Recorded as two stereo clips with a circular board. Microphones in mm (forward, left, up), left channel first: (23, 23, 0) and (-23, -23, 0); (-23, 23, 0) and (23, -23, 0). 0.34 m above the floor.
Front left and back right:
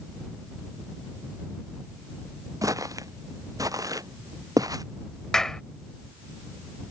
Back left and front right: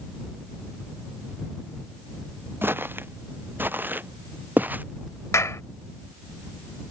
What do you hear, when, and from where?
2.6 s footsteps: 105° right; by 4.8 s 110° right
5.3 s a clap: 125° left